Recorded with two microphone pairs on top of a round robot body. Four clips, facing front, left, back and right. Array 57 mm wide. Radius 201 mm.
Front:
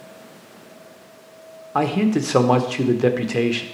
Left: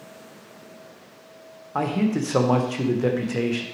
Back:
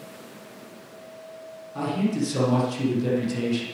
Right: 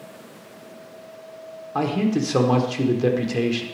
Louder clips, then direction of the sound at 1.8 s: Right 1 dB, front 6 dB; 10° left.